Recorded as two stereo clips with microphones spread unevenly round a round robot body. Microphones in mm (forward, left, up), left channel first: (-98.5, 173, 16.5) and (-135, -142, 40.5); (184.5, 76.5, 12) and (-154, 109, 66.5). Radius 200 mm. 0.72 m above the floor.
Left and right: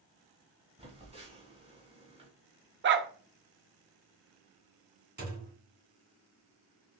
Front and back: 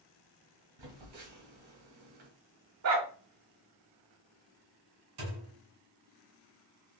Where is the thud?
155° right, 2.5 m.